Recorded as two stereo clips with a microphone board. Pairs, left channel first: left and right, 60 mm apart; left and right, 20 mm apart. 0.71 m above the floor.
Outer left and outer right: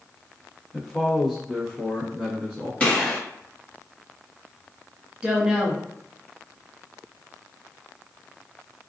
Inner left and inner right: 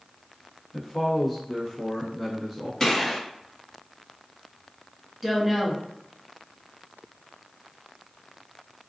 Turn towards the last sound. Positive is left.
turn(degrees=-15)  # may be behind; listen again after turning